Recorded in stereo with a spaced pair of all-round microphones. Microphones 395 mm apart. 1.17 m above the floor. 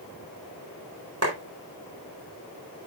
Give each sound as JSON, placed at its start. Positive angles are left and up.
{"t": 1.2, "sound": "a clap", "side_deg": -40, "distance_m": 4.0}